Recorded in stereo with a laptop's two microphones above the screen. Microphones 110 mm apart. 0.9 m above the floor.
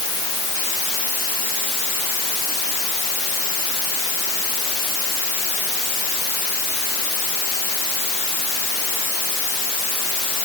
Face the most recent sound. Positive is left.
No sound to turn to.